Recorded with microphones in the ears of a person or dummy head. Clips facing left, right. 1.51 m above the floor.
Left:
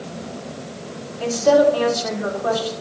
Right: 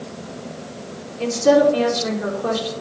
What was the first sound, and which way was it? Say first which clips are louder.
A woman speaking: even; 40° right (ahead or behind).